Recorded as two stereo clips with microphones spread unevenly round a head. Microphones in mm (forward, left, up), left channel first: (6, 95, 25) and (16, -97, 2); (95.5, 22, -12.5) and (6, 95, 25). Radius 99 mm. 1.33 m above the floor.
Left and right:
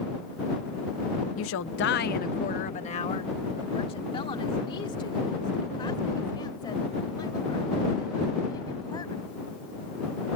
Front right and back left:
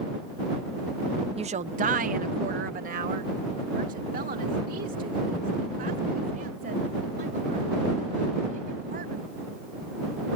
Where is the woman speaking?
95° left; by 9.3 s 165° left.